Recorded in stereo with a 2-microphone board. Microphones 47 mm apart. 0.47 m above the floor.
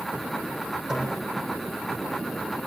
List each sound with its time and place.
0.9 s a snare drum: 10° right (ahead or behind), 4 m